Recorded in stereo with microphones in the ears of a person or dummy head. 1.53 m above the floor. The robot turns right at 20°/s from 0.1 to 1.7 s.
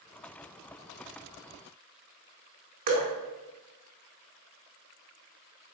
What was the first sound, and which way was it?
Dripping, 40° right (ahead or behind).